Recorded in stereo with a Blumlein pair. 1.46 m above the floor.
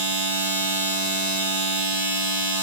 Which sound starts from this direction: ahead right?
A machine running, at 0.0 s.